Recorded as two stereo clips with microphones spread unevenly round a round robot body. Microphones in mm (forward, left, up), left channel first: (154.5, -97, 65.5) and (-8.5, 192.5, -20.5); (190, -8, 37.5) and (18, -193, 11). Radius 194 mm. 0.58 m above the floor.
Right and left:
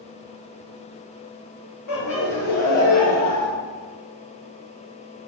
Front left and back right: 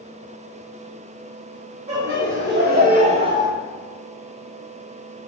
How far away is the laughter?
About 1.3 m.